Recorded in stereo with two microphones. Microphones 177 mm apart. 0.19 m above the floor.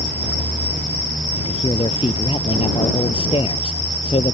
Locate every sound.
1.4 s a man speaking: 30° left (ahead or behind)